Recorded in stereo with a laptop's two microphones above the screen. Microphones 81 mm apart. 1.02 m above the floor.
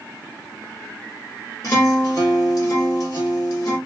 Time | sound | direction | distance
1.6 | a guitar | 45° left (ahead or behind) | 1.3 m